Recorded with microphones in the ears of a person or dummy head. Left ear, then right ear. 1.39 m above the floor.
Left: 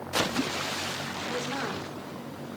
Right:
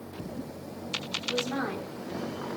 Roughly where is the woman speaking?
Centre.